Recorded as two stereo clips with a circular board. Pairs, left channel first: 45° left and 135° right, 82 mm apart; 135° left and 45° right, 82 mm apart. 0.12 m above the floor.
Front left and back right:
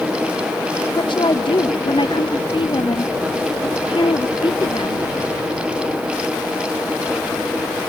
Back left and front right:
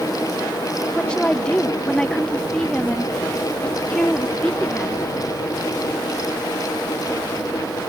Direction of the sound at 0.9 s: 55° left.